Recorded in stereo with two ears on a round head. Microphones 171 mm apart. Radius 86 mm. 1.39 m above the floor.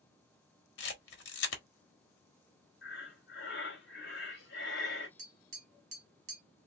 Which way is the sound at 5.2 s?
40° right (ahead or behind).